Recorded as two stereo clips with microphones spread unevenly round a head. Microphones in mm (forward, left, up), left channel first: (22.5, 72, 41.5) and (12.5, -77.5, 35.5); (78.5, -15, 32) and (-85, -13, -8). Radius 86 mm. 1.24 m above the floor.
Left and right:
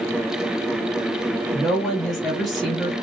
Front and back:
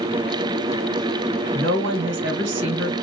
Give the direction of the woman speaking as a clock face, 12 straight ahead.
6 o'clock.